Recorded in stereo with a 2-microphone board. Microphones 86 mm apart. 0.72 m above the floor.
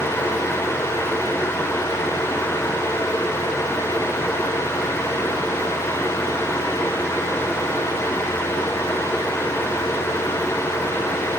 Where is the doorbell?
No doorbell in this recording.